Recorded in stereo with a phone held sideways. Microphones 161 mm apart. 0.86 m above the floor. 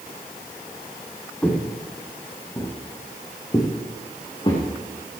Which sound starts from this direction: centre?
Footsteps, at 1.4 s.